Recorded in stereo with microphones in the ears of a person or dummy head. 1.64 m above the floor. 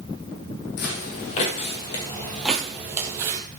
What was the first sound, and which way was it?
Footsteps, 50° left (ahead or behind).